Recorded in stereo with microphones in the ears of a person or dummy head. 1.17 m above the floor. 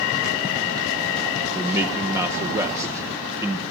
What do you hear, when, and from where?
1.5 s a man speaking: 15° right (ahead or behind), 0.6 m